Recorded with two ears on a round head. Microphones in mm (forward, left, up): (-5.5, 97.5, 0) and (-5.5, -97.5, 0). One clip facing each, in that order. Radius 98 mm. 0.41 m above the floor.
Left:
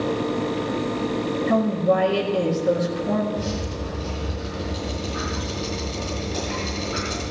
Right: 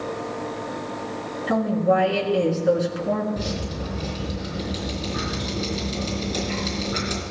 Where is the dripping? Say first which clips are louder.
Left 1 dB; 45° right (ahead or behind), 5.5 m.